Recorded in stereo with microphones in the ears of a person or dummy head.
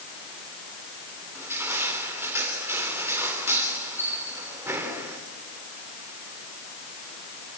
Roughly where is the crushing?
Centre.